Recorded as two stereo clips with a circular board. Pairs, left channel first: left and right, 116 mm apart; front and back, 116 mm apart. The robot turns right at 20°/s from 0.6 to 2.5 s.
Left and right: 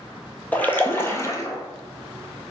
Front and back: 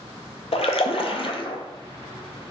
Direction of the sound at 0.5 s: 15° left.